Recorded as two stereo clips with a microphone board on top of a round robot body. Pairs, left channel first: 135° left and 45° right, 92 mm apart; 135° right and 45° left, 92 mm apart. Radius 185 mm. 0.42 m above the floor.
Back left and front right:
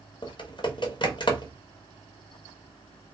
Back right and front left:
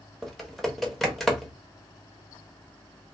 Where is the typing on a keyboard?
135° left, 1.2 m.